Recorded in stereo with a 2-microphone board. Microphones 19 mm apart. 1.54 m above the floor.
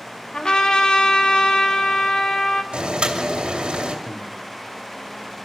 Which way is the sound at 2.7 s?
80° right.